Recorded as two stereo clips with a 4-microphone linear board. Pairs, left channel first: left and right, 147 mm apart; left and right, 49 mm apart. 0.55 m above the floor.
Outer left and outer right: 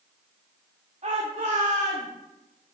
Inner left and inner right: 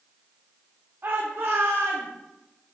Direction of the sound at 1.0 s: 50° right (ahead or behind).